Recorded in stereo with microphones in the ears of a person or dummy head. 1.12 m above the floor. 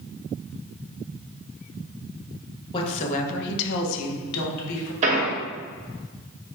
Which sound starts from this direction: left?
A woman speaking, at 2.7 s.